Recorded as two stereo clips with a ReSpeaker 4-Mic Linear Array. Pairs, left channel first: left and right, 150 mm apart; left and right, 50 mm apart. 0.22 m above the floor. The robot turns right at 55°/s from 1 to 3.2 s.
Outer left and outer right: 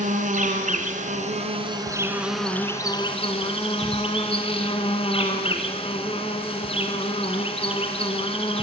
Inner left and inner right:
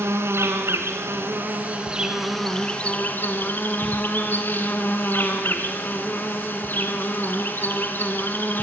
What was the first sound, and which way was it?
An insect, 75° right.